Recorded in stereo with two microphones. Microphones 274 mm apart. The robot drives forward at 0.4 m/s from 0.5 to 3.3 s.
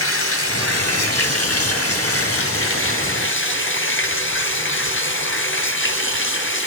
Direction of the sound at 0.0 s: 55° left (ahead or behind).